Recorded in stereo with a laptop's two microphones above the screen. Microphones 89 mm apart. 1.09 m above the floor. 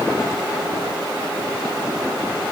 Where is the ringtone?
No ringtone in this recording.